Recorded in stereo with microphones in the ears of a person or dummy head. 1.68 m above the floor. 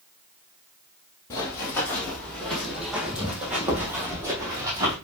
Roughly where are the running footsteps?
Centre.